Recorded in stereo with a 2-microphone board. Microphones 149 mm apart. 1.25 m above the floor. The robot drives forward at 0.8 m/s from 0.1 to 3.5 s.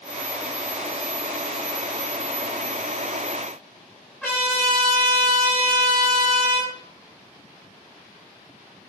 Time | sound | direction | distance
4.2 | a trumpet | 10° left (ahead or behind) | 6 m